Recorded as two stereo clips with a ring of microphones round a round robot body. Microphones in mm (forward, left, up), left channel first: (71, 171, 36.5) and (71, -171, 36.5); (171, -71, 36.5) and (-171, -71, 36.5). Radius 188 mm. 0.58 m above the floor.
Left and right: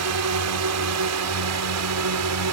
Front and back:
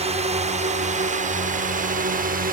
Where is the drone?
115° right; by 2.5 s 120° right.